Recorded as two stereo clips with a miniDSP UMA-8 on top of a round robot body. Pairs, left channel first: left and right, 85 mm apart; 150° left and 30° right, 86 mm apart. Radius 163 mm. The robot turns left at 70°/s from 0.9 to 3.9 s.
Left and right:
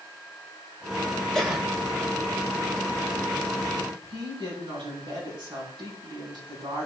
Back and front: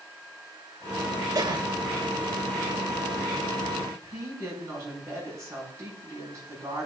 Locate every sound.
1.4 s a cough: 10° left, 2.5 m; by 1.7 s 15° right, 2.5 m
3.9 s a woman speaking: 80° right, 5.5 m